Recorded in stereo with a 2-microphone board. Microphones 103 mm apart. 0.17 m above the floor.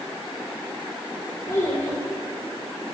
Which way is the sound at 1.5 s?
25° left (ahead or behind).